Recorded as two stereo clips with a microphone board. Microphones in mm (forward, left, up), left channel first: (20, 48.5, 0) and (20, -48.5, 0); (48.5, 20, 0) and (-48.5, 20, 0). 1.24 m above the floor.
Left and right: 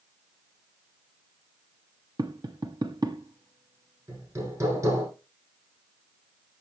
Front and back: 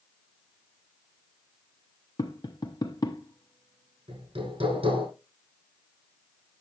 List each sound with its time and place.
2.2 s tapping: 45° right, 0.9 m
4.1 s hammering: 150° right, 6.5 m